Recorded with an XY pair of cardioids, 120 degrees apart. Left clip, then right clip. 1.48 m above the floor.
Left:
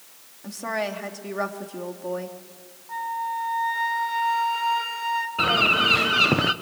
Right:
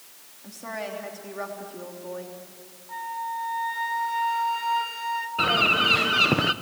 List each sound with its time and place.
0.4 s a woman speaking: 40° left, 3 m
2.9 s a flute: 20° left, 2 m
5.4 s a bird: 10° left, 1.1 m